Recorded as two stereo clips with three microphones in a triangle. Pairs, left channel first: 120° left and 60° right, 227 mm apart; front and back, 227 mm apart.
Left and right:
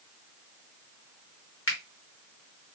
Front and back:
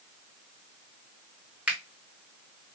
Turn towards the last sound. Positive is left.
turn(degrees=95)